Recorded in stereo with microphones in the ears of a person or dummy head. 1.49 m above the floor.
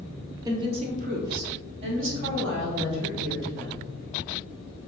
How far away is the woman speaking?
About 0.6 m.